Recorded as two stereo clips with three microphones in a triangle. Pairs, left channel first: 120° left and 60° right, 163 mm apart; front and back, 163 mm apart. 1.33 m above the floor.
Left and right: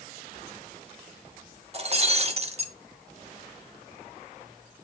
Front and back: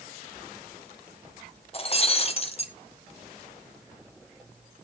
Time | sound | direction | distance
1.7 | breaking glass | 35° right | 1.6 m